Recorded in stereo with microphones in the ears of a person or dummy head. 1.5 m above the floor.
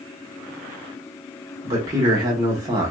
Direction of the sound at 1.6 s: 20° right (ahead or behind).